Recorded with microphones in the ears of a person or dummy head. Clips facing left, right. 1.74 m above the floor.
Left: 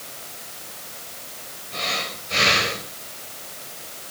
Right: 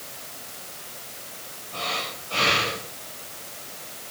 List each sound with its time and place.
1.7 s breathing: 20° left (ahead or behind), 5.5 m